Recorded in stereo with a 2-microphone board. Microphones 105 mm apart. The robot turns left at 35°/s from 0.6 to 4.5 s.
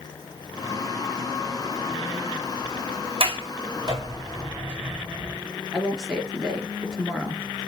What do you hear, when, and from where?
3.2 s a sliding door: 60° right (ahead or behind), 2.5 m; by 5.4 s 15° right (ahead or behind), 2.5 m
5.7 s a woman speaking: 5° left (ahead or behind), 3.5 m